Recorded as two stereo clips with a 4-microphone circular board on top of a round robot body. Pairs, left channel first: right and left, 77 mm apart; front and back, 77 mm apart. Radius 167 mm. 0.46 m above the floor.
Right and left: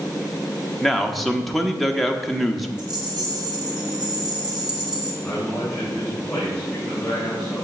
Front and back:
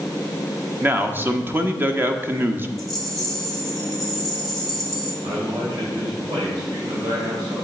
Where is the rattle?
90° left, 2.5 m.